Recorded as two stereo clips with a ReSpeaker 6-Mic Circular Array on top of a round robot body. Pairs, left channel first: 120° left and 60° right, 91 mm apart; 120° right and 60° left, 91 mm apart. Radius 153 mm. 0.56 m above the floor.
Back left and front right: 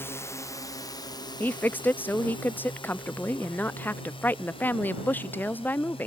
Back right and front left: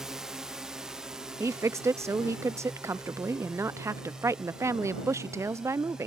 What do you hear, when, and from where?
0.0 s a drone: 140° left; by 6.1 s 145° left
1.4 s a woman speaking: 70° left